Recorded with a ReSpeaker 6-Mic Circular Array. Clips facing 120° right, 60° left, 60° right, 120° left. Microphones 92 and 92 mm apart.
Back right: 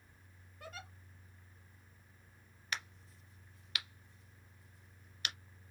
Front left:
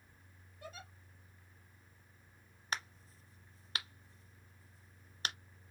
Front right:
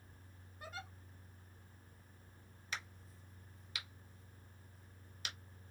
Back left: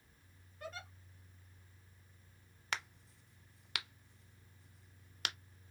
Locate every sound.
0.6 s a giggle: 140° right, 2 m
2.7 s a crack: 110° left, 0.6 m